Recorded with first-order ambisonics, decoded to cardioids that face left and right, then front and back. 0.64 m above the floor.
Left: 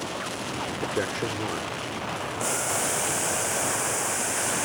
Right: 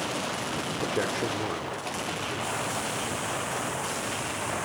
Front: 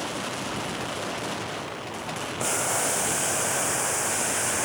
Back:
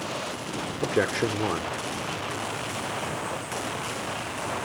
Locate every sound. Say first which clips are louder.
0.8 s a man speaking: even, back 6 dB; 175° left
2.4 s boiling: left 6 dB, front 5 dB; 35° left